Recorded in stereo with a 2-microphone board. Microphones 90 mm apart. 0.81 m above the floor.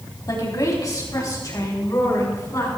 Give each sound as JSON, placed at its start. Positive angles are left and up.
{"t": 0.3, "sound": "a woman speaking", "side_deg": 45, "distance_m": 4.5}